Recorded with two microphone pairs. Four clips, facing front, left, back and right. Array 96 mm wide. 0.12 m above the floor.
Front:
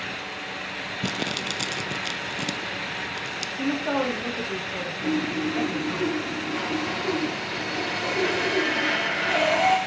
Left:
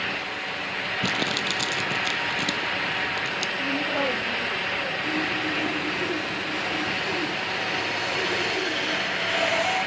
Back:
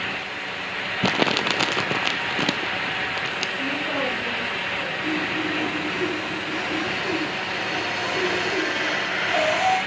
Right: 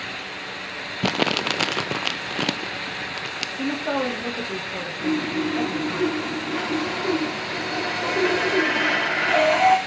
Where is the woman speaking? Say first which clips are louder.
Right 4 dB, front 4 dB; 55° right, 6 m.